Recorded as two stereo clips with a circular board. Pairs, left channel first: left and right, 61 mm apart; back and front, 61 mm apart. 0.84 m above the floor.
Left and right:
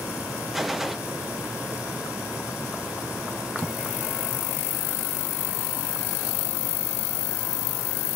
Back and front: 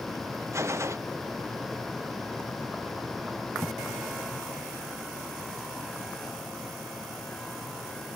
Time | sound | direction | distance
0.5 | a gunshot | 5° right | 0.6 m